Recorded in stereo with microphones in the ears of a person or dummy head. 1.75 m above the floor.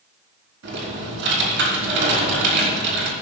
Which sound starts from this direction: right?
Typing on a keyboard, at 0.6 s.